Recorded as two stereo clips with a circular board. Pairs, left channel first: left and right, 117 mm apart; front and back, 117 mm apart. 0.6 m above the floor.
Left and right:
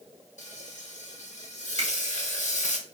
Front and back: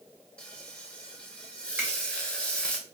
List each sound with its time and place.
0.4 s frying: 80° left, 0.9 m
1.8 s a finger snap: 110° right, 2 m